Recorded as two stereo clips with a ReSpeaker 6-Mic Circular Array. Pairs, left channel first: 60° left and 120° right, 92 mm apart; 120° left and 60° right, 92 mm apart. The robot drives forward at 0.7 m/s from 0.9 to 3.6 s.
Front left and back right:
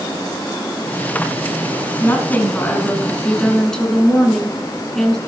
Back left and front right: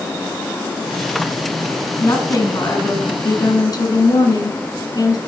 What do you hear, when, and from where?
2.0 s a woman speaking: 105° left, 2.0 m; by 5.2 s 140° left, 2.5 m